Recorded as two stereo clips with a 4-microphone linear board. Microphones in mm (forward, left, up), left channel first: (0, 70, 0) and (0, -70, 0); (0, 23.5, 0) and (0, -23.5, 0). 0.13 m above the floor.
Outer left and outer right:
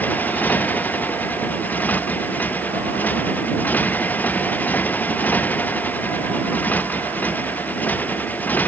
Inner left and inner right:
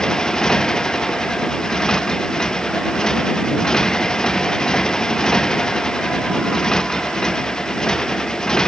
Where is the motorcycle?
10° left (ahead or behind).